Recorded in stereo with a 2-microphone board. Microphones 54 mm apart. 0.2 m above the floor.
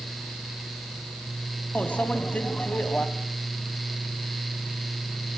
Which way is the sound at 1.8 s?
25° left (ahead or behind).